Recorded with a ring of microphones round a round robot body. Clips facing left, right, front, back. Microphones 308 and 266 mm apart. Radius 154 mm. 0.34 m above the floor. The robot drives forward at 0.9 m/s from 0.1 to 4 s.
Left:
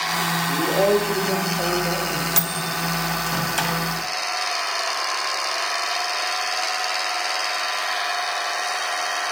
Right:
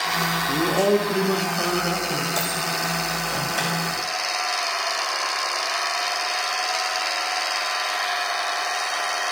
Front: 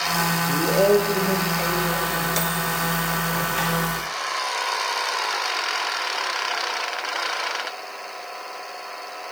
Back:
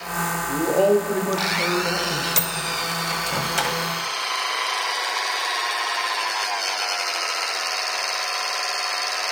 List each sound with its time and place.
0.5 s a man speaking: 65° right, 1.2 m; by 2.3 s 155° right, 1.7 m
2.4 s a microwave: 130° left, 1.2 m; by 3.8 s 160° left, 2 m